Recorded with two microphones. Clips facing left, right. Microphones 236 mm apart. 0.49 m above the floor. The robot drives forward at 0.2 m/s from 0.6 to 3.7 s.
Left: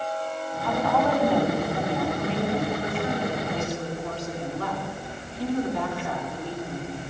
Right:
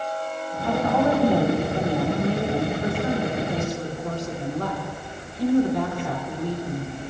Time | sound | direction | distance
0.6 | a woman speaking | 40° right (ahead or behind) | 3 m